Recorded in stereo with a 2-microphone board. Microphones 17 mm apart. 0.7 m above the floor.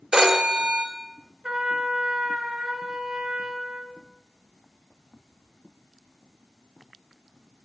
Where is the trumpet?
80° right, 2 m.